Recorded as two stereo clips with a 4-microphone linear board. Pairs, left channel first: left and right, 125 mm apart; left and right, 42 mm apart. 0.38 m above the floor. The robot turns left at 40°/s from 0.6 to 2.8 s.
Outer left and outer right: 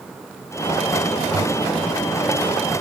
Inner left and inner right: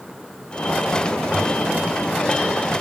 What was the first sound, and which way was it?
A toilet flushing, 45° right (ahead or behind).